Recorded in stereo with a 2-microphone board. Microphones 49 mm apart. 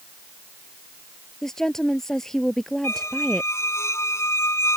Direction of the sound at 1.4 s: 10° left (ahead or behind).